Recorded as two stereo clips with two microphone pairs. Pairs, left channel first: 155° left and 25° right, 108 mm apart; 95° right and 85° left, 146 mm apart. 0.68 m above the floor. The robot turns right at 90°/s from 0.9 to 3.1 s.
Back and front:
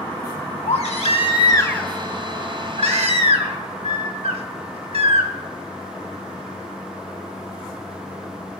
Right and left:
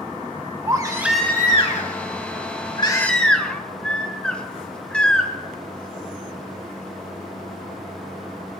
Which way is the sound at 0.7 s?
150° left.